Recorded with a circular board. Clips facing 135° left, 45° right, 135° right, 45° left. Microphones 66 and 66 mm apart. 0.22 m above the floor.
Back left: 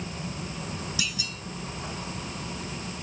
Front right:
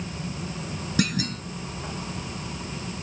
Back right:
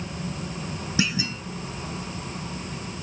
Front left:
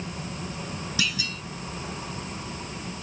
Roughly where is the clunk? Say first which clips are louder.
Front right 9 dB, back right 5 dB; right.